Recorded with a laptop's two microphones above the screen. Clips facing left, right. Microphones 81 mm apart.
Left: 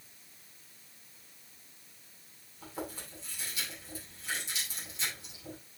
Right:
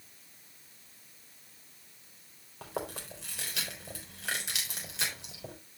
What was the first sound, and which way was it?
Chewing, 80° right.